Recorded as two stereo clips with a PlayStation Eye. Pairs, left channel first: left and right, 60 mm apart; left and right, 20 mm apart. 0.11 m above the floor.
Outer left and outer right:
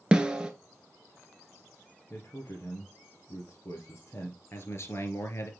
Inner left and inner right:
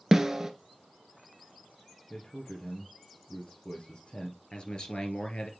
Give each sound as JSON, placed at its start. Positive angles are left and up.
{"t": 0.1, "sound": "a snare drum", "side_deg": -15, "distance_m": 1.1}
{"t": 2.1, "sound": "a man speaking", "side_deg": 45, "distance_m": 2.5}
{"t": 4.5, "sound": "a man speaking", "side_deg": 50, "distance_m": 2.5}